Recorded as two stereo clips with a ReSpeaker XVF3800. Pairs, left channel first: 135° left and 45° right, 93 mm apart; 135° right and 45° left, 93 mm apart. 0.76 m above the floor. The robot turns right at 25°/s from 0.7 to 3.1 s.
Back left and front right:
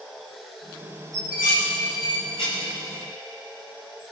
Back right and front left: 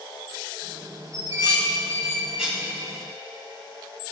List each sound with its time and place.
1.1 s dishes clattering: 95° left, 3.5 m; by 2.7 s 135° left, 3.5 m